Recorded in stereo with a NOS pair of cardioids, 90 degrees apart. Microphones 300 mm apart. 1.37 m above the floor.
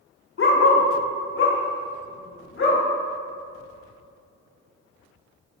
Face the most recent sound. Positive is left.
turn(degrees=45)